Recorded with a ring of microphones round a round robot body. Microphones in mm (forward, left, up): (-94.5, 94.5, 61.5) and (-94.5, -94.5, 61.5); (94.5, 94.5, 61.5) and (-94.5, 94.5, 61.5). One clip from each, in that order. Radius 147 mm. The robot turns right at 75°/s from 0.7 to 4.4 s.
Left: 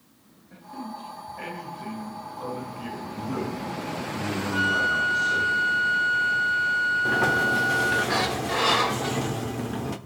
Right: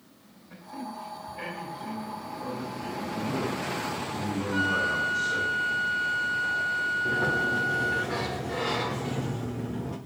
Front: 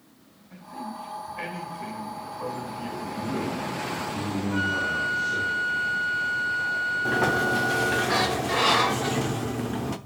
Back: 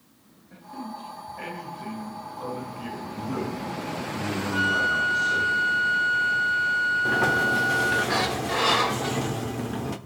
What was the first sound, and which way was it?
A man speaking, 65° right.